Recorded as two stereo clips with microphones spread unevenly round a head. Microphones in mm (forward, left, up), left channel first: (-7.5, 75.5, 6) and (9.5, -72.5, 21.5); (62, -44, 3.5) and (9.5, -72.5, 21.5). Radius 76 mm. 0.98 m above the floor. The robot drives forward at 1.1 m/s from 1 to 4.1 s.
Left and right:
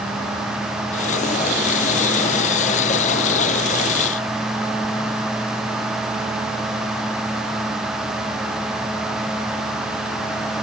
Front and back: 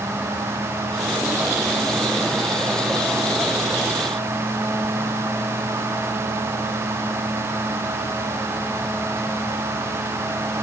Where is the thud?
I don't hear a thud.